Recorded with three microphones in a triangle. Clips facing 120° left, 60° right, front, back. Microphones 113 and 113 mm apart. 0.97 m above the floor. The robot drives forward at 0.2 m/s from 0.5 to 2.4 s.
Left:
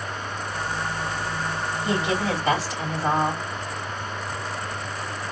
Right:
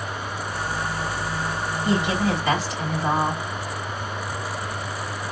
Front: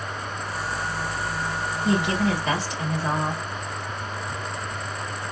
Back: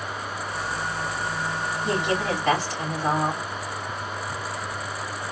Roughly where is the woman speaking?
Behind.